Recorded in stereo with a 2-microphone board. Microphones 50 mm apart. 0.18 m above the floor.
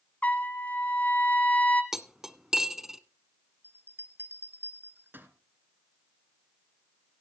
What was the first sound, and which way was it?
A trumpet, 30° left (ahead or behind).